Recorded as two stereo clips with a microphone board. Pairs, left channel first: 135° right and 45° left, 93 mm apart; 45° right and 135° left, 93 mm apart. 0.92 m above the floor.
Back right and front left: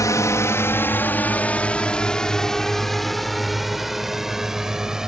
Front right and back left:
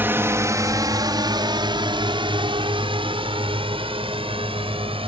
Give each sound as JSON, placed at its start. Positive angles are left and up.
{"t": 0.0, "sound": "a drone", "azimuth_deg": -170}